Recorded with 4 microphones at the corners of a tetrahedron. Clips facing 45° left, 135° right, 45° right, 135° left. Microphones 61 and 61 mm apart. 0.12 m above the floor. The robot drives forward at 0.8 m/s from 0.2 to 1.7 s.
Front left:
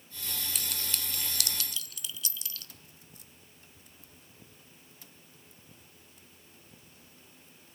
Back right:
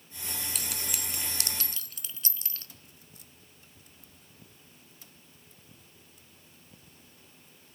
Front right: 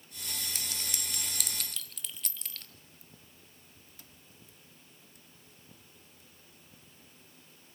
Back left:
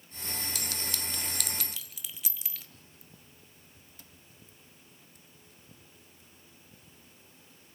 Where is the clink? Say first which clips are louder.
Back right 1 dB, back left 3 dB; 40° right, 1.0 m; by 2.7 s 145° right, 1.1 m.